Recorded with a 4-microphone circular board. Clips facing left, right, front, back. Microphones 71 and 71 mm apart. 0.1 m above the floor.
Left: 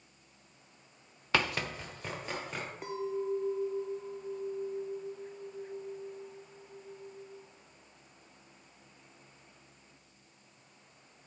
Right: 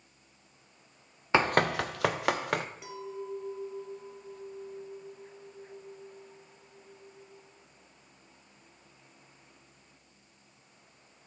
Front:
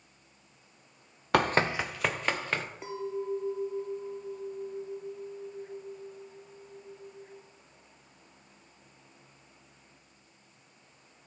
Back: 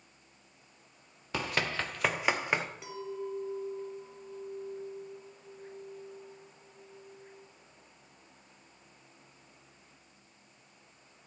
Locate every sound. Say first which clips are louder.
1.3 s running footsteps: right 7 dB, front 8 dB; 20° right, 0.5 m; by 2.6 s 105° right, 1.7 m
2.8 s a clink: left 5 dB, front 4 dB; 50° left, 1.4 m